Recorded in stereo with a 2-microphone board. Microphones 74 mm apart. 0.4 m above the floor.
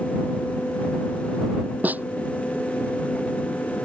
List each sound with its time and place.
1.8 s a snare drum: 25° right (ahead or behind)